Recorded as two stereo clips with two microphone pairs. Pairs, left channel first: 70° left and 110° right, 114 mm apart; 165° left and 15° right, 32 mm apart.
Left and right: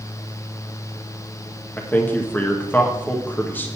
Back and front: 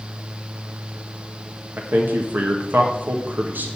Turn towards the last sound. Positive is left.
turn(degrees=0)